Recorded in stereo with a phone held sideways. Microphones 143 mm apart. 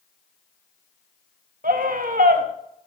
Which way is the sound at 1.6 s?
80° right.